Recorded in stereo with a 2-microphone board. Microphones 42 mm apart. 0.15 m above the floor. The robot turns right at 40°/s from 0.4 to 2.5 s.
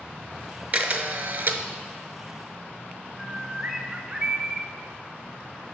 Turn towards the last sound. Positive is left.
turn(degrees=-10)  # may be behind; listen again after turning